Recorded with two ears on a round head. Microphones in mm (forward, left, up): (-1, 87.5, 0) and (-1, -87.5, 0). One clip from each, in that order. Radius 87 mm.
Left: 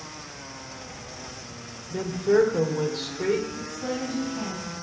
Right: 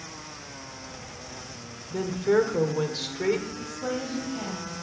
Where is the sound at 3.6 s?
30° right (ahead or behind), 3 m.